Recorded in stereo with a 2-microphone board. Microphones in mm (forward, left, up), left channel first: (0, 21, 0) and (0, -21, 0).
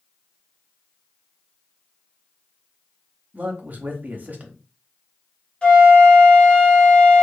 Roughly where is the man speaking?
Right.